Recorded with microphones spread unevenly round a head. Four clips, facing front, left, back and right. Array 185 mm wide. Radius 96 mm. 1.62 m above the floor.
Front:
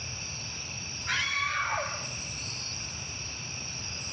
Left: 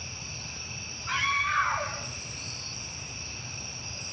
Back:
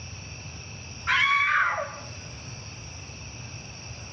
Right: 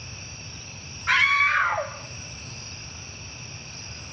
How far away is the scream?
About 2 m.